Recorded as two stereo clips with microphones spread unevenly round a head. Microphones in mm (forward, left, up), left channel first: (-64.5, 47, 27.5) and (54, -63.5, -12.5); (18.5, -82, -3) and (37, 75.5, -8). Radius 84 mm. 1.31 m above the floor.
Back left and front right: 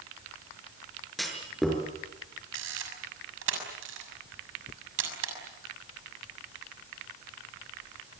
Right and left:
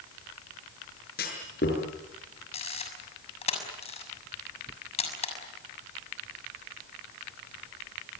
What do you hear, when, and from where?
1.2 s a clunk: 135° right, 6.5 m
2.5 s a camera shutter: 45° right, 6.5 m